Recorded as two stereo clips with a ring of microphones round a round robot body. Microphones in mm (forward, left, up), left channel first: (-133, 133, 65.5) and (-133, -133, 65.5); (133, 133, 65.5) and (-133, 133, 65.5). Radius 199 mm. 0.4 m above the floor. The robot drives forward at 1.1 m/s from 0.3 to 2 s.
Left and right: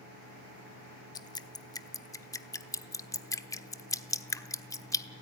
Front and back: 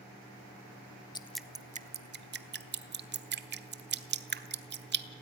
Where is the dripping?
40° left, 1.0 m; by 5.0 s 160° left, 1.2 m.